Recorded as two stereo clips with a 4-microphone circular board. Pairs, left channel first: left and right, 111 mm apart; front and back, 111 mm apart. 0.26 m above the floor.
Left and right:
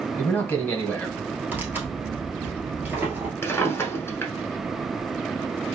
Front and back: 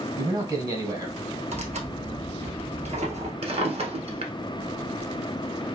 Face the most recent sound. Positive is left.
turn(degrees=155)